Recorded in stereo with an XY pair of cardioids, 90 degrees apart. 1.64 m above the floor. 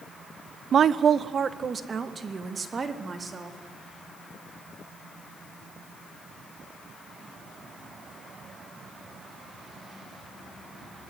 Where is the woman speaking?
65° right, 1.0 m; by 3.6 s 40° right, 4.5 m.